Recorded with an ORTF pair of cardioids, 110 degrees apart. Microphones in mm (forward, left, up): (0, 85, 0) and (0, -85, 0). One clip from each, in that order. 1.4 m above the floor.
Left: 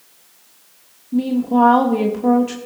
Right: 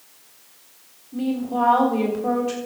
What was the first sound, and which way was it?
A woman speaking, 60° left.